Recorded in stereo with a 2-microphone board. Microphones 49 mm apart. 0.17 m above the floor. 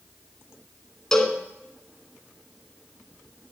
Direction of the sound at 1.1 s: 10° left (ahead or behind).